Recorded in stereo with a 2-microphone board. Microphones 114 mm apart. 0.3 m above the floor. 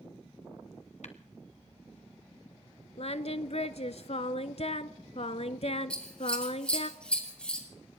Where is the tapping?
70° left (ahead or behind), 1.4 m.